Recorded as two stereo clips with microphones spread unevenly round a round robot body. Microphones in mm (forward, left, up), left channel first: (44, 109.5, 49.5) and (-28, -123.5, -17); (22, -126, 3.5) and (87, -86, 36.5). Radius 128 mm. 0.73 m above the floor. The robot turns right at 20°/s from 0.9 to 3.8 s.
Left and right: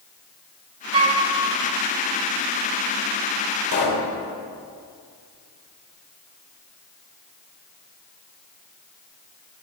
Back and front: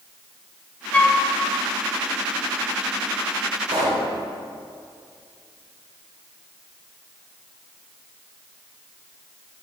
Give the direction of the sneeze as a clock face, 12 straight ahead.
No sneeze in this recording.